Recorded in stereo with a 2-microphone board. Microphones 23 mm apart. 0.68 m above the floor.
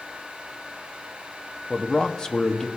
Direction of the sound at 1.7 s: 30° left (ahead or behind).